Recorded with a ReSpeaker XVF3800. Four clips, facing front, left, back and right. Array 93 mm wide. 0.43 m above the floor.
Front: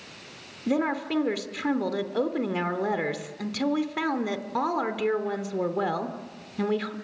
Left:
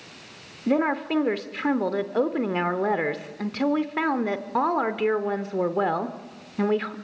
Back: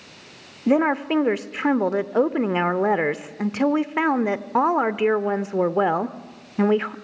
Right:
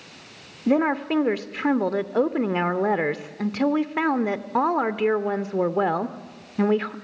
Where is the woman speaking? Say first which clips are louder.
Right 2 dB, back 7 dB; 170° right, 0.8 m.